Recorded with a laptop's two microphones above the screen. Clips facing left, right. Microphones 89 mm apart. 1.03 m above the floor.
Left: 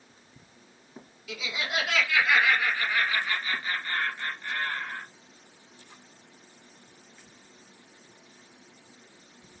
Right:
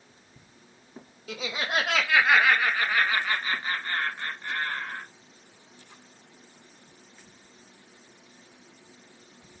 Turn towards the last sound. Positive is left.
turn(degrees=-25)  # may be behind; listen again after turning